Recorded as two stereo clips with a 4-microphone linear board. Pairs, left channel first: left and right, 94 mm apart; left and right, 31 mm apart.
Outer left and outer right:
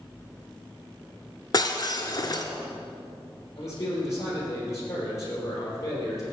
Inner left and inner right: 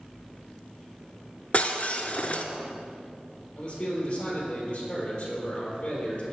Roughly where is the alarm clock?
No alarm clock in this recording.